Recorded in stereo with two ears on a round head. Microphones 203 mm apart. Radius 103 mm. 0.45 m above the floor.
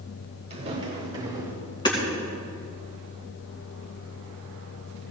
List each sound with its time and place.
0.5 s footsteps: 30° right (ahead or behind), 5 m; by 1.5 s 15° right (ahead or behind), 4 m
1.9 s hammering: 20° left (ahead or behind), 4 m